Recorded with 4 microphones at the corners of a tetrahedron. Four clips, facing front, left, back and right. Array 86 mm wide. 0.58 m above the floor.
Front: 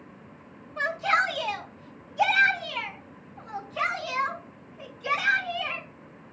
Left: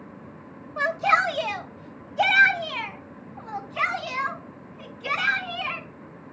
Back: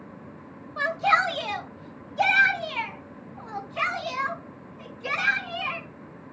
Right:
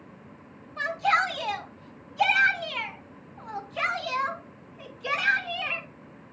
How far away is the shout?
About 2.0 m.